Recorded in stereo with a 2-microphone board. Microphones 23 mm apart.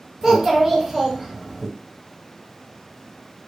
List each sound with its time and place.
0.2 s a child speaking: 15° right (ahead or behind), 1.1 m